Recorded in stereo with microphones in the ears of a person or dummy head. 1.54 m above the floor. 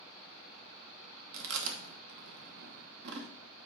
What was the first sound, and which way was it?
Chewing, 60° right (ahead or behind).